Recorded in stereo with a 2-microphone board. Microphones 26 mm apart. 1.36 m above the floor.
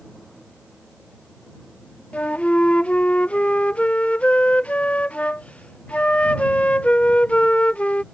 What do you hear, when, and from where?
2.1 s a flute: 60° left (ahead or behind)